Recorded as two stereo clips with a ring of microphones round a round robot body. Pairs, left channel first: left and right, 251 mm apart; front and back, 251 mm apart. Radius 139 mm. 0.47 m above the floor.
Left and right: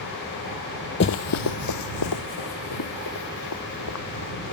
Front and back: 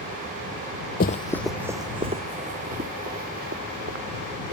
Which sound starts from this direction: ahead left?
Running footsteps, at 1.0 s.